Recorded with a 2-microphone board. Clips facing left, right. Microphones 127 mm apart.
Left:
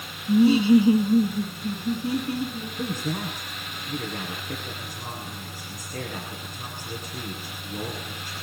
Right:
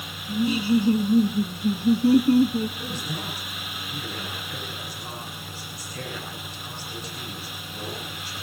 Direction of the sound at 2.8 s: 50° left (ahead or behind).